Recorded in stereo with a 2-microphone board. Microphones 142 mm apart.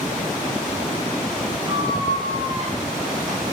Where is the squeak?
25° right (ahead or behind), 3.5 m.